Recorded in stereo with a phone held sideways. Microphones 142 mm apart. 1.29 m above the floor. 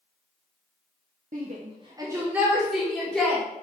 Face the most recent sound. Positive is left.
turn(degrees=10)  # may be behind; listen again after turning